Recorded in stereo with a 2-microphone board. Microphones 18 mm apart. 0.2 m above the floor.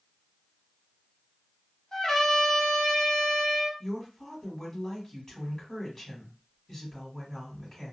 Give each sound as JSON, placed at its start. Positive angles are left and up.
{"t": 1.9, "sound": "a trumpet", "side_deg": 30, "distance_m": 1.0}
{"t": 3.8, "sound": "a woman speaking", "side_deg": 20, "distance_m": 1.6}